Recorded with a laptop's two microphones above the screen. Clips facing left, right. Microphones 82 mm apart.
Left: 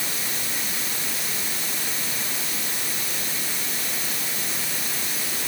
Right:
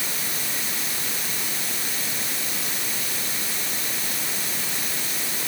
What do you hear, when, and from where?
Only background noise.